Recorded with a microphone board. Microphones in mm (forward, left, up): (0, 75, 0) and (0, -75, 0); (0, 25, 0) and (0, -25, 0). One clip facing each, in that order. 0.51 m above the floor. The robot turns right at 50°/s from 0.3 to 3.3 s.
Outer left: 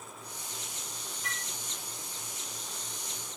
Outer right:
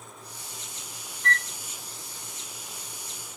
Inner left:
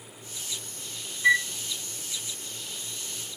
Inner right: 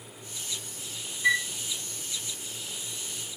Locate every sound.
1.2 s a flute: 5° left (ahead or behind), 0.6 m; by 1.5 s 15° left (ahead or behind), 0.6 m